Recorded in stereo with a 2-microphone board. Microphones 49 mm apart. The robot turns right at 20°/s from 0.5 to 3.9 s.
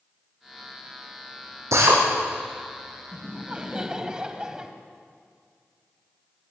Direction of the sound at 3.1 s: 30° right (ahead or behind).